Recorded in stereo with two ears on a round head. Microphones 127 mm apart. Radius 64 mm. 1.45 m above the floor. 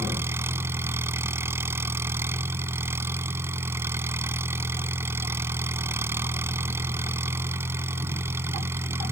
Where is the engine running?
15° right (ahead or behind).